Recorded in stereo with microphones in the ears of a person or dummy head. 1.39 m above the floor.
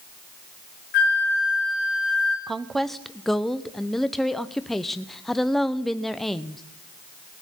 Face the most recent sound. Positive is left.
turn(degrees=0)  # may be behind; listen again after turning